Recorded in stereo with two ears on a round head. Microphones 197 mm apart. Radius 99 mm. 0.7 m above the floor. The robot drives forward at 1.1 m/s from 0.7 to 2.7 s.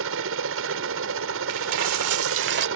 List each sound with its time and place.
0.0 s a helicopter: 60° right (ahead or behind)
1.5 s a dropped coin: 70° right (ahead or behind); by 2.7 s 45° right (ahead or behind)